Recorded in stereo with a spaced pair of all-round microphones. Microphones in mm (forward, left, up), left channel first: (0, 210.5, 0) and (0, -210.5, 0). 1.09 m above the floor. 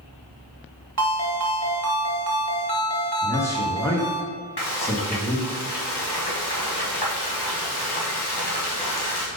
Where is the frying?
60° left (ahead or behind), 1.3 m.